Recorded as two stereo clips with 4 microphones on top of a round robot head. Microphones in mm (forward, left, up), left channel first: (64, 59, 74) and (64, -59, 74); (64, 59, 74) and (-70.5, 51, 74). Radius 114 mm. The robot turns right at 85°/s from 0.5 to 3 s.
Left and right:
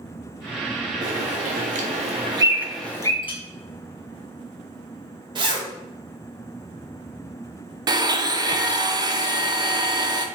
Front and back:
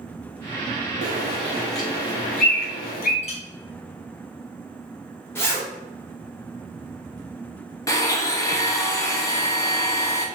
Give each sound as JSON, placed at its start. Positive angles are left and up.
{"t": 1.0, "sound": "a bird", "azimuth_deg": -150, "distance_m": 0.7}
{"t": 3.2, "sound": "a clink", "azimuth_deg": 45, "distance_m": 1.0}
{"t": 5.3, "sound": "a zipper", "azimuth_deg": -60, "distance_m": 1.0}
{"t": 7.9, "sound": "a blender", "azimuth_deg": -50, "distance_m": 0.5}